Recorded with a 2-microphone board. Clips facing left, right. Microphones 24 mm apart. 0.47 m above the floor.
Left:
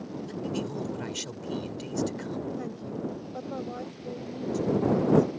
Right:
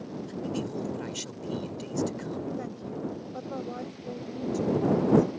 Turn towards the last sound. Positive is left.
turn(degrees=-5)  # may be behind; listen again after turning